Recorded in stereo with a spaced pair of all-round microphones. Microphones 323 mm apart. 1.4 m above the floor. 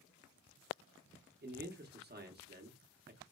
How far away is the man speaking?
About 0.6 m.